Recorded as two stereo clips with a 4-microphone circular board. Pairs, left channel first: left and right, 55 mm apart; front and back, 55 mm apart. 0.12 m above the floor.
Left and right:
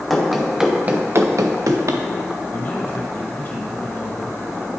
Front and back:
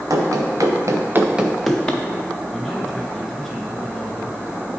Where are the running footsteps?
175° left, 1.6 m; by 2.0 s 70° right, 1.3 m.